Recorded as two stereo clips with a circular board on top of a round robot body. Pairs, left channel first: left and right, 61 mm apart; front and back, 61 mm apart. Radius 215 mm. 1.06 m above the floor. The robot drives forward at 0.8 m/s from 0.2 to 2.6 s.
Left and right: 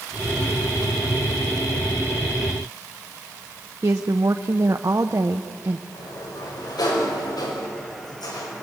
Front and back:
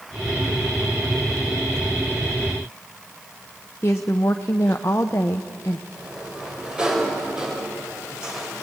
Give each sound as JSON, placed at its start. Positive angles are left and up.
{"t": 3.8, "sound": "a woman speaking", "azimuth_deg": -50, "distance_m": 0.8}
{"t": 5.9, "sound": "a sliding door", "azimuth_deg": 100, "distance_m": 4.5}